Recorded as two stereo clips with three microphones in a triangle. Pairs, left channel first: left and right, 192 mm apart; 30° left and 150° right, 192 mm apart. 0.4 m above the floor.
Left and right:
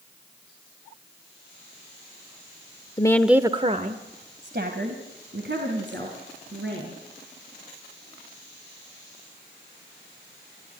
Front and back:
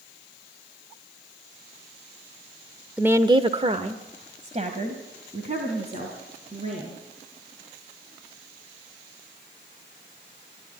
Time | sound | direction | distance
3.0 | a woman speaking | 135° left | 0.9 m